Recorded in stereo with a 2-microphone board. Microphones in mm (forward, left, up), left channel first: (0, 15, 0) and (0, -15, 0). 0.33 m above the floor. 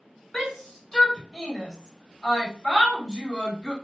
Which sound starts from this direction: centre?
A shout, at 0.3 s.